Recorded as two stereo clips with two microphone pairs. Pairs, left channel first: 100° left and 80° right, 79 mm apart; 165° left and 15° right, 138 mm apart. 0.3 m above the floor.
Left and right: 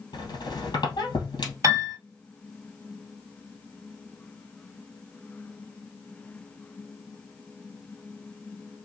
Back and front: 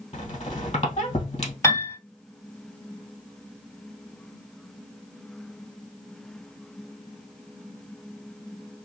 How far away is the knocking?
No knocking in this recording.